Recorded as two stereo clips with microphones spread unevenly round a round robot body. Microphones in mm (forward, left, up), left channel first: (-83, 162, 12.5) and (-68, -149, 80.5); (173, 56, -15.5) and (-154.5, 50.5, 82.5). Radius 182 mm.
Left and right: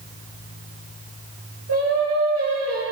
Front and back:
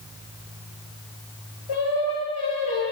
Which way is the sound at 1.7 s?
35° right.